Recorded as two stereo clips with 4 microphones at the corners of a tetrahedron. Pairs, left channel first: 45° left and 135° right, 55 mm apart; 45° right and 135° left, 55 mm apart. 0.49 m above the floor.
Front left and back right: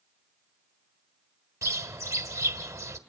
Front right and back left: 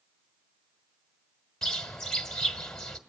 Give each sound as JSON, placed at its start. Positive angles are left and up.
{"t": 1.6, "sound": "a bird", "azimuth_deg": -125, "distance_m": 1.5}